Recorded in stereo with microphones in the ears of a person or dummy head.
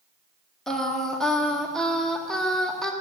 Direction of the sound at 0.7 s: 5° left (ahead or behind).